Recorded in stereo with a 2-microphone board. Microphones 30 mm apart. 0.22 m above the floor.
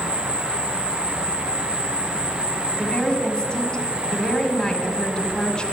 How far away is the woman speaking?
About 1.7 m.